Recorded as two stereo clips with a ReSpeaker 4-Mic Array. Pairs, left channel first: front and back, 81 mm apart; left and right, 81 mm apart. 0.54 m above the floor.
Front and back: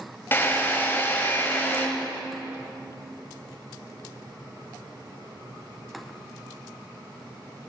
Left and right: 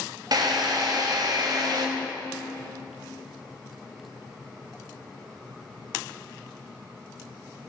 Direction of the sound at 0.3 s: 60° right.